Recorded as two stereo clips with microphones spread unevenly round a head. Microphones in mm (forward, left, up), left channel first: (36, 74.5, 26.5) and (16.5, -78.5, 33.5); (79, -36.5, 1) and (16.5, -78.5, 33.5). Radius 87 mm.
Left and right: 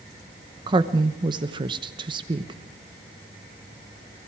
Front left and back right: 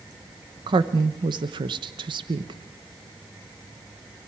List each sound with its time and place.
0.7 s a woman speaking: 150° right, 1.0 m